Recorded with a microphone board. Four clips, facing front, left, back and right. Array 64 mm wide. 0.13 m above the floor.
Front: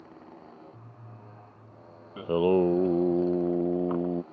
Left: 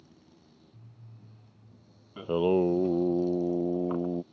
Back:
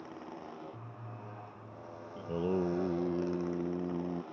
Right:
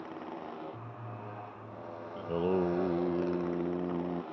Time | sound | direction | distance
0.0 | a motorcycle | 105° right | ?
2.2 | singing | 20° left | ?